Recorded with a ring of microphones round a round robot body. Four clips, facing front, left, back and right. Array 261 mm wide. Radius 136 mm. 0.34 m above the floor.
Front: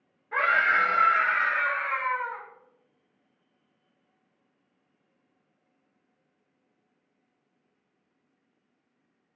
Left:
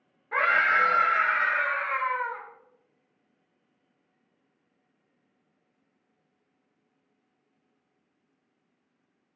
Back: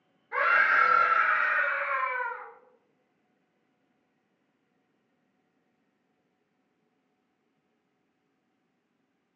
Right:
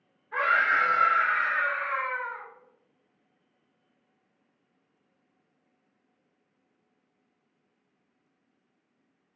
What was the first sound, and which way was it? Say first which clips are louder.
A scream: left 1 dB, even; 80° left.